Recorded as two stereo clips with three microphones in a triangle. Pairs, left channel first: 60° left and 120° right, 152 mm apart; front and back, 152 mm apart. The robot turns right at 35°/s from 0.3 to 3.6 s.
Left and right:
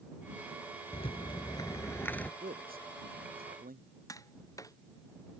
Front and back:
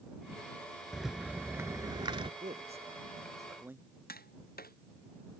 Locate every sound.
0.9 s a rattle: 90° left; by 2.3 s 135° left
2.4 s a man speaking: 145° right; by 3.9 s 105° right
4.1 s tapping: 10° right